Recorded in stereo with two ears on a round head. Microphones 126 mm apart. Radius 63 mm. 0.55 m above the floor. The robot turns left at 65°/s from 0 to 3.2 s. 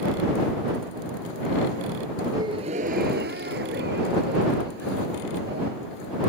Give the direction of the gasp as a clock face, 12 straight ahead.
1 o'clock.